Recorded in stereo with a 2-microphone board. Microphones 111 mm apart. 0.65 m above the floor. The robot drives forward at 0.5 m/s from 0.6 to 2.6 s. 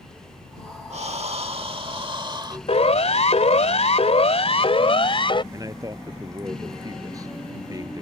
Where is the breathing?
70° right (ahead or behind); by 2.6 s 40° right (ahead or behind).